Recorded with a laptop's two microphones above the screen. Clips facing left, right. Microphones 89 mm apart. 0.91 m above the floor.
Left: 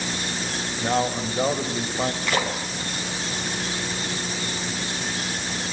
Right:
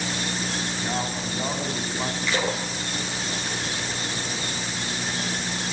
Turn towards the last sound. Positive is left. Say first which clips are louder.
# even
turn(degrees=55)  # may be behind; listen again after turning